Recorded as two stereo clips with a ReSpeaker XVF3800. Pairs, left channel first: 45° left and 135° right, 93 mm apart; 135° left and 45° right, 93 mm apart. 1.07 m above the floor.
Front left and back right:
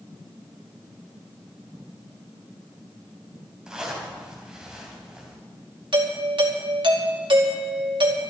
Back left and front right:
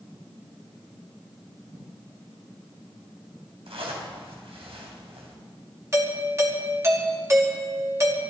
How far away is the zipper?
About 4 m.